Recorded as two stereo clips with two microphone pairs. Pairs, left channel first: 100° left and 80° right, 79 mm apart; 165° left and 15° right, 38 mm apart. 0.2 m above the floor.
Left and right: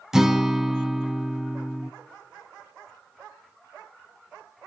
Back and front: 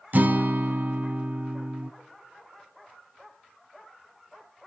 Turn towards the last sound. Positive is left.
turn(degrees=0)